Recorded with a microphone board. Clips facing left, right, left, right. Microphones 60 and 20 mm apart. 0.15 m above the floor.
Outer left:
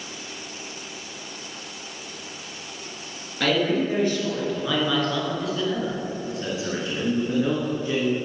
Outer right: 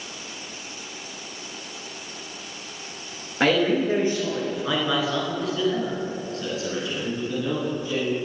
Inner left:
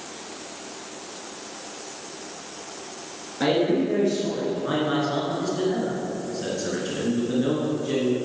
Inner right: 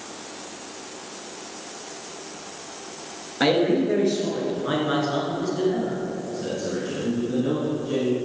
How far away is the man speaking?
About 2.5 m.